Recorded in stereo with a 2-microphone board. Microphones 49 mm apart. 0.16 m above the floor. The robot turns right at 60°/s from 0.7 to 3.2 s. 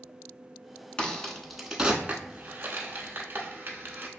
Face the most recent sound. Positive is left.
turn(degrees=-50)  # may be behind; listen again after turning